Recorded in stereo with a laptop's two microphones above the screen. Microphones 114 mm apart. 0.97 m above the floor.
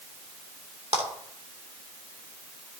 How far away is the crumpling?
No crumpling in this recording.